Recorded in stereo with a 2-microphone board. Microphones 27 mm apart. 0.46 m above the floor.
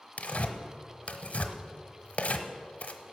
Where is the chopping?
No chopping in this recording.